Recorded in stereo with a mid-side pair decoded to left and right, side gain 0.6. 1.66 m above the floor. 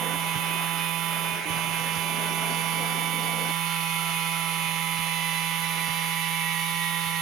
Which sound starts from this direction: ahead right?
A machine running, at 0.0 s.